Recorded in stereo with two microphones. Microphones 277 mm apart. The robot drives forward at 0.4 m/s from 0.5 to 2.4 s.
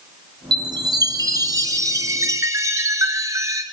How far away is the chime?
About 1.9 m.